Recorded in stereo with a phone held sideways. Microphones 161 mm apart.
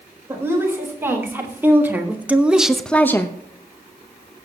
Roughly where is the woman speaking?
Centre.